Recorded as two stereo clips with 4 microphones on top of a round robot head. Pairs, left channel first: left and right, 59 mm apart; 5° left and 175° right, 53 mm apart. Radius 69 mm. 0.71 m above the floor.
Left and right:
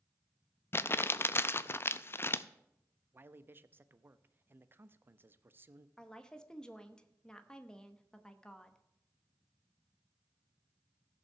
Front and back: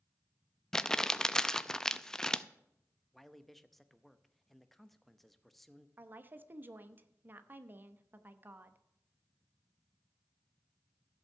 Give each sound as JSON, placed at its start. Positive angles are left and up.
{"t": 0.7, "sound": "crumpling", "azimuth_deg": 80, "distance_m": 0.6}
{"t": 3.1, "sound": "a man speaking", "azimuth_deg": -80, "distance_m": 0.7}
{"t": 6.0, "sound": "a woman speaking", "azimuth_deg": 160, "distance_m": 1.0}